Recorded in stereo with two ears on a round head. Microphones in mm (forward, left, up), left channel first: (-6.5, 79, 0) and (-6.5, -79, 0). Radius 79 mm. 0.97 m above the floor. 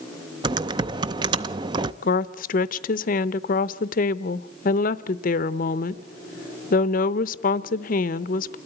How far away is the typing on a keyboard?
About 0.5 m.